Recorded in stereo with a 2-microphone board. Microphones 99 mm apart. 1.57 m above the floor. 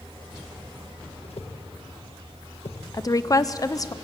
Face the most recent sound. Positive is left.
turn(degrees=35)  # may be behind; listen again after turning